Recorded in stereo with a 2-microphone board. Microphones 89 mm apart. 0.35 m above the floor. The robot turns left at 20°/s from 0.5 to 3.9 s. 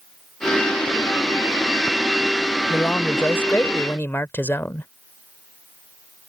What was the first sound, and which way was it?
A man speaking, 20° left (ahead or behind).